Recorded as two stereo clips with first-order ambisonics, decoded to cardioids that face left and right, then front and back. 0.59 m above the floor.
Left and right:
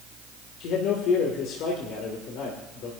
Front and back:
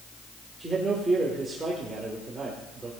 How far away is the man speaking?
About 2 m.